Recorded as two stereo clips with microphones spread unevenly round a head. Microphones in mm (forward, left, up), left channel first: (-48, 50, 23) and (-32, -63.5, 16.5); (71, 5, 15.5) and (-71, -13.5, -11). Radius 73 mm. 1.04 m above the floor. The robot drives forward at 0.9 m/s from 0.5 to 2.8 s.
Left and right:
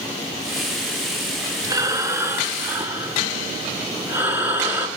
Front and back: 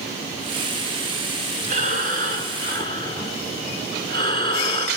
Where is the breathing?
140° right, 1.7 m; by 4.9 s 155° right, 2.5 m.